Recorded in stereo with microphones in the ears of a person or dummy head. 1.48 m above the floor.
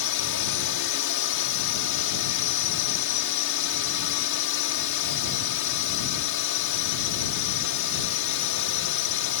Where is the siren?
I don't hear a siren.